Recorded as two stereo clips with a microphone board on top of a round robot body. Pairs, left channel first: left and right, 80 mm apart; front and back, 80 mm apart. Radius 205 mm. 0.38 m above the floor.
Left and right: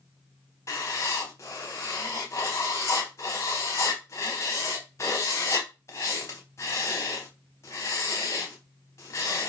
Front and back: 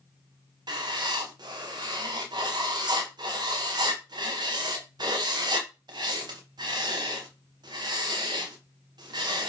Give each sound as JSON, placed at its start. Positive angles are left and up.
{"t": 0.7, "sound": "writing", "azimuth_deg": 145, "distance_m": 0.8}